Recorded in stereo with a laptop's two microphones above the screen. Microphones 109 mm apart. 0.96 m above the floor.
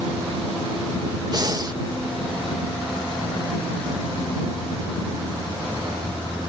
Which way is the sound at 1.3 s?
35° right (ahead or behind).